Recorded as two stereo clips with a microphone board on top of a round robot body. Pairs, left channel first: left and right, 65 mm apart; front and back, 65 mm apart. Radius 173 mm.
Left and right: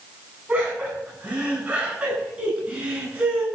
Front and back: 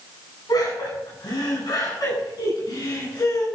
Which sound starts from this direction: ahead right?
Laughter, at 0.5 s.